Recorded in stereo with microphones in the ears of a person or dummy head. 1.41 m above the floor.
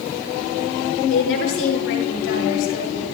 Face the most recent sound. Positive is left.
turn(degrees=70)  # may be behind; listen again after turning